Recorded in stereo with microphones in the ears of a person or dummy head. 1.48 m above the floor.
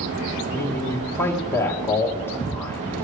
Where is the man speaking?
10° left (ahead or behind), 1.1 m.